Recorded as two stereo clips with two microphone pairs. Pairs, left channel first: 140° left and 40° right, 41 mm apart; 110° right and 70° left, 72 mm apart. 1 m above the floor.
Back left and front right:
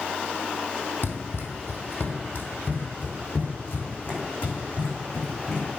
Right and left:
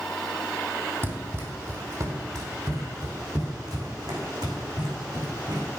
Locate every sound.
1.0 s running footsteps: 120° left, 2.5 m; by 5.7 s 80° left, 4.5 m